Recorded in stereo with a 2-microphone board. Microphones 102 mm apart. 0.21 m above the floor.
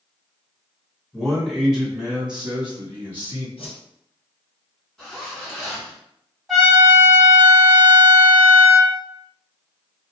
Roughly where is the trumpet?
Centre.